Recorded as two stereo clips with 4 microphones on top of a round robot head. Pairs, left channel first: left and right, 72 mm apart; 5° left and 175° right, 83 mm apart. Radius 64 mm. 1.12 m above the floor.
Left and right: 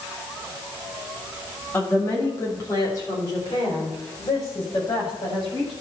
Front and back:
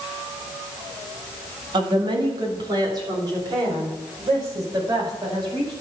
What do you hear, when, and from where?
1.7 s a woman speaking: 160° left, 1.8 m; by 5.7 s 145° left, 6 m